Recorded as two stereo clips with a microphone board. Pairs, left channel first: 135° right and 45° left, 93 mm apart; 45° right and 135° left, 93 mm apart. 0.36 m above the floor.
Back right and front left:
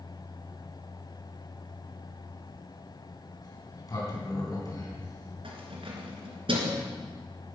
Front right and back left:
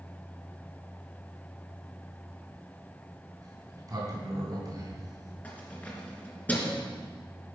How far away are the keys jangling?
About 3 m.